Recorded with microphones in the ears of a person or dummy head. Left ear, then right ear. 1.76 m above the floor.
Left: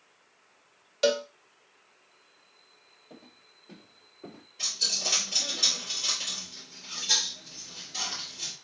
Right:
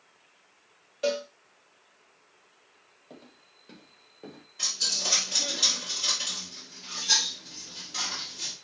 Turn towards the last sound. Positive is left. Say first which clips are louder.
# right 1 dB
turn(degrees=-20)  # may be behind; listen again after turning